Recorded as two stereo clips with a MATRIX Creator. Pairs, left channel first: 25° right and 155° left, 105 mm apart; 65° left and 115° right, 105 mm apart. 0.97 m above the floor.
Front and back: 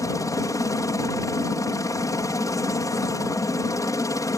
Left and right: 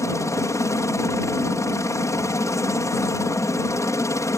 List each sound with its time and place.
0.0 s a helicopter: 20° left